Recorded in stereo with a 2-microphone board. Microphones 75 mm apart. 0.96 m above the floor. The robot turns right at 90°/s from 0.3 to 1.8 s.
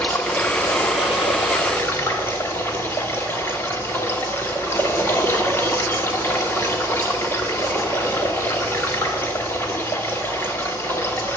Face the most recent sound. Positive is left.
turn(degrees=150)